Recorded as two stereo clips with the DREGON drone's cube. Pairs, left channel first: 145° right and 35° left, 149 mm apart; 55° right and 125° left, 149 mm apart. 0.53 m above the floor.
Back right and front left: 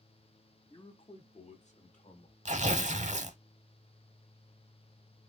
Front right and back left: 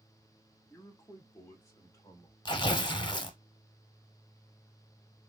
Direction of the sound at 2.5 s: Straight ahead.